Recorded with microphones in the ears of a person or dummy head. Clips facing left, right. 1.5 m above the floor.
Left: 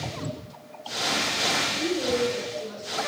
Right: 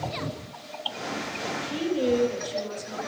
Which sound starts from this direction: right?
A woman speaking, at 1.6 s.